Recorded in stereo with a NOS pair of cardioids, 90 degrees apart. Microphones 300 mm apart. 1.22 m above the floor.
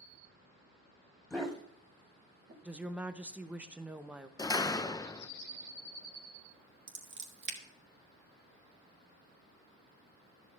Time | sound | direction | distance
1.3 | a dog barking | straight ahead | 3 m
2.6 | a woman speaking | 5° right | 0.9 m
4.4 | a door slam | 15° left | 0.6 m
6.9 | scissors | 40° right | 1.8 m